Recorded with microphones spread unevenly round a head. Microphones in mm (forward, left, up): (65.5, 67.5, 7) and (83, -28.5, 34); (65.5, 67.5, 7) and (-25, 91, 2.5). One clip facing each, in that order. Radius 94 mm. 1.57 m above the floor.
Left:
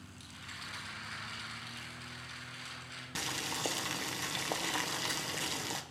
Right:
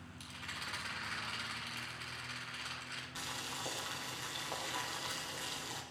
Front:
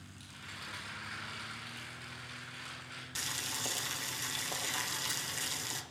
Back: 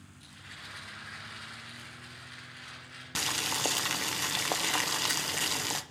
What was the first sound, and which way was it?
A rattle, 50° right.